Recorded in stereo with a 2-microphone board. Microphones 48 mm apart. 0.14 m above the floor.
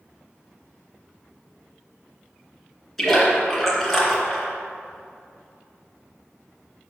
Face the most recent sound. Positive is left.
turn(degrees=5)  # may be behind; listen again after turning